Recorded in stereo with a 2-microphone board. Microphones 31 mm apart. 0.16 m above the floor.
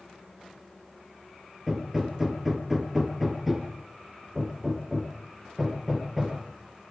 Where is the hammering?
5° right (ahead or behind), 3.5 m.